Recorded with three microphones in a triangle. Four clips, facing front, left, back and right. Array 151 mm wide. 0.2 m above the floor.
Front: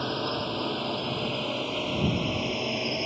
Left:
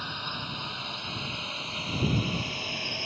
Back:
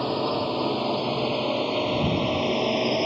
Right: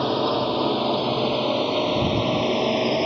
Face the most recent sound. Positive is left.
turn(degrees=-120)